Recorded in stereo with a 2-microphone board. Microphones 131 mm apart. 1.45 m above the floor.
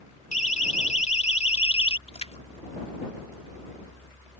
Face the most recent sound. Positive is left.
turn(degrees=55)  # may be behind; listen again after turning